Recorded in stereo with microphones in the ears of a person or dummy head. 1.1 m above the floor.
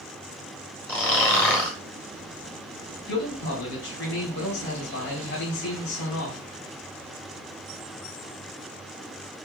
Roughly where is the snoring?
Centre.